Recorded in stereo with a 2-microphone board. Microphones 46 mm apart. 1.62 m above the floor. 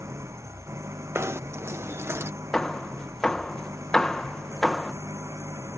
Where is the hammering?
15° left (ahead or behind).